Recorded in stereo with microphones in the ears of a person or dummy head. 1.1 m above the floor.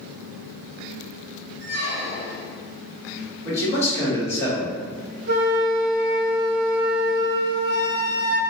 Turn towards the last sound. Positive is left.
turn(degrees=-65)  # may be behind; listen again after turning